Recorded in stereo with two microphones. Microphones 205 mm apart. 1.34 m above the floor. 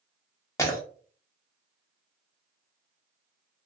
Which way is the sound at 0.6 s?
15° left (ahead or behind).